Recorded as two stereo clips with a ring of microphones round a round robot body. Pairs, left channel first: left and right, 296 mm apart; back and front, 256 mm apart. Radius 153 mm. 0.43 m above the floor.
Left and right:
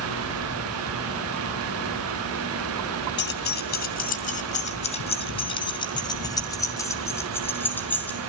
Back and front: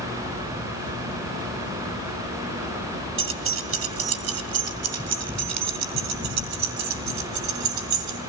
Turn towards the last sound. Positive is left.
turn(degrees=5)